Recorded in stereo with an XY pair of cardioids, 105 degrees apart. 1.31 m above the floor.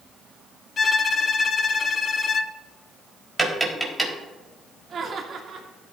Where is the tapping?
Straight ahead, 3.5 m.